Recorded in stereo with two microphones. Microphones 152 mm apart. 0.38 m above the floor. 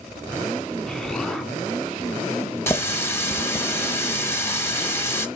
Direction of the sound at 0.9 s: 5° left (ahead or behind).